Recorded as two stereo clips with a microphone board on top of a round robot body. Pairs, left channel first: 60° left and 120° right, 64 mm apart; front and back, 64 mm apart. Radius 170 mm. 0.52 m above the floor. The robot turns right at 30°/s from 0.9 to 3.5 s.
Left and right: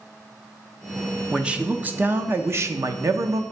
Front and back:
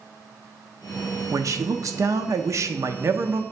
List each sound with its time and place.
1.3 s a man speaking: 165° left, 0.9 m; by 3.4 s 130° right, 0.9 m